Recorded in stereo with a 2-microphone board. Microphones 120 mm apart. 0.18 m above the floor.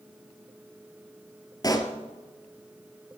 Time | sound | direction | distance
1.6 | a pop | 30° left (ahead or behind) | 1.5 m